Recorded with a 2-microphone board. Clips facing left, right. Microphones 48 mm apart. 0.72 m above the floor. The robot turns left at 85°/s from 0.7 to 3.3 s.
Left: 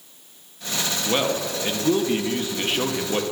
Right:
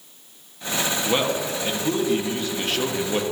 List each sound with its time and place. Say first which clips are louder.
1.1 s a man speaking: left 1 dB; centre (ahead or behind), 0.7 m